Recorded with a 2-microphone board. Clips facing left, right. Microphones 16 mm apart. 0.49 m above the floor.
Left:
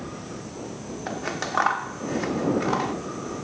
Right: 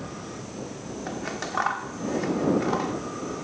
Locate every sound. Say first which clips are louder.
1.1 s scissors: left 3 dB; 15° left (ahead or behind)